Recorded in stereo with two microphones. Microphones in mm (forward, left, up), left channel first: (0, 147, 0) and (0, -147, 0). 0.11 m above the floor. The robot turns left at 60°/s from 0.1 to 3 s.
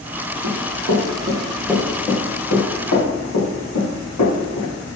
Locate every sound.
0.4 s running footsteps: 65° right (ahead or behind), 1.2 m; by 4.7 s 65° left (ahead or behind), 2.5 m